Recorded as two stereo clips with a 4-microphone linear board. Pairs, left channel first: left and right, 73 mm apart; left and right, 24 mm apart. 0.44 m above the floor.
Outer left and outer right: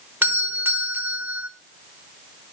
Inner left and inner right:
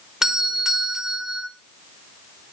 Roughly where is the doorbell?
Right.